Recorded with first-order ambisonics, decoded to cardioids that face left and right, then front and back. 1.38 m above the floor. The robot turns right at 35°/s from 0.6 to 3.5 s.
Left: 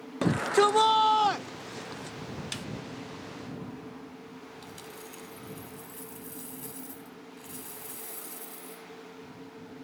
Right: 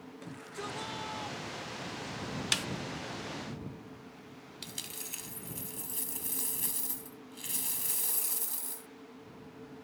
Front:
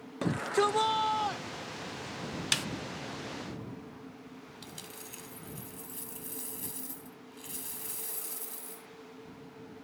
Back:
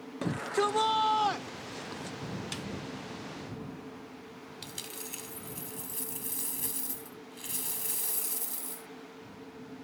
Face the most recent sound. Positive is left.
turn(degrees=-115)